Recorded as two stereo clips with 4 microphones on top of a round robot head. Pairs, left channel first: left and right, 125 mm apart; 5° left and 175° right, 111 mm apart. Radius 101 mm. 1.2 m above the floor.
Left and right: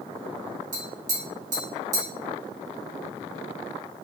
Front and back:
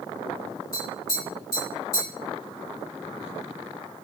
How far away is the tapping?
About 1.5 m.